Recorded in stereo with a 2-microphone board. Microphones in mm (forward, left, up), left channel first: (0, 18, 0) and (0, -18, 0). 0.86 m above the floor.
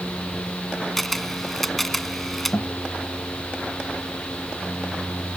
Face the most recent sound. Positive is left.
turn(degrees=70)  # may be behind; listen again after turning